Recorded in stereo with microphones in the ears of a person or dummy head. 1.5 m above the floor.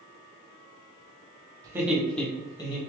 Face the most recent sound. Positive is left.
turn(degrees=25)  # may be behind; listen again after turning